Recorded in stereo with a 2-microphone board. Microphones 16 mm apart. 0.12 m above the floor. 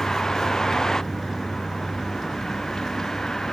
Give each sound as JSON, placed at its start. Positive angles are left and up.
{"t": 0.0, "sound": "a vehicle", "side_deg": 35}